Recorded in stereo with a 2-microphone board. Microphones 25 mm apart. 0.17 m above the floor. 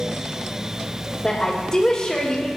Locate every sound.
1.2 s a woman speaking: 20° left (ahead or behind), 4.5 m